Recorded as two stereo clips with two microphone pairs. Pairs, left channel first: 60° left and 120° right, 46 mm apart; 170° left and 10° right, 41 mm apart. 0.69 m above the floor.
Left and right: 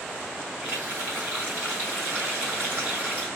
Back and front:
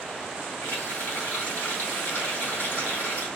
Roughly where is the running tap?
Behind.